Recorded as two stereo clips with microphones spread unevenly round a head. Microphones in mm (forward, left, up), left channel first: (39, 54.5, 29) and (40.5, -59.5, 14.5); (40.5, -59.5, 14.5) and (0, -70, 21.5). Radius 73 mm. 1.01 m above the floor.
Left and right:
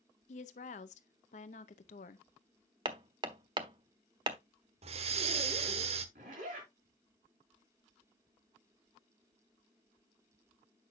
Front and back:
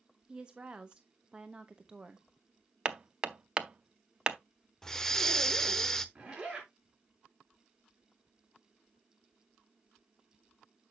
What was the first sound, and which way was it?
A woman speaking, 115° left.